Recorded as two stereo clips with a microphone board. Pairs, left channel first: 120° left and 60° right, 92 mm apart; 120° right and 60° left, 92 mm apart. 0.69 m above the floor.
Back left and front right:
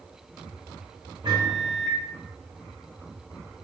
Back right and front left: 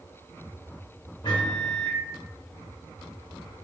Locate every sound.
1.2 s a microwave: 90° right, 1.6 m